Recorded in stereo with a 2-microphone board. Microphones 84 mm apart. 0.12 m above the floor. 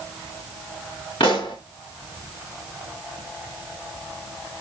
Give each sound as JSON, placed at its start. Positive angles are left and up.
{"t": 1.2, "sound": "a pop", "side_deg": 70, "distance_m": 8.0}